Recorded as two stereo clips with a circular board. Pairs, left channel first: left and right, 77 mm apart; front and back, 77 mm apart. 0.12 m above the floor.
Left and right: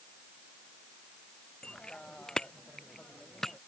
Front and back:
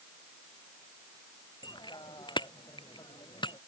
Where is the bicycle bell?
10° left; by 3.6 s 5° left.